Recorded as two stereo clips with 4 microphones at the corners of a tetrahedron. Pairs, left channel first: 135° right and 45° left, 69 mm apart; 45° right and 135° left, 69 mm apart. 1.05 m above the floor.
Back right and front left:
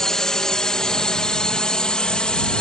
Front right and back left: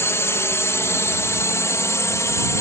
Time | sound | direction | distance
0.0 | a drone | 55° right | ?